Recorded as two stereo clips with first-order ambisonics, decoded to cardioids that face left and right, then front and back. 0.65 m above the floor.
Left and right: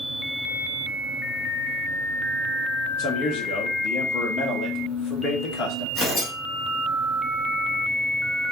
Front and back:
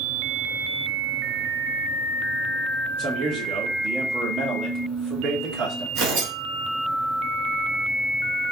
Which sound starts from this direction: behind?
Tearing paper, at 6.0 s.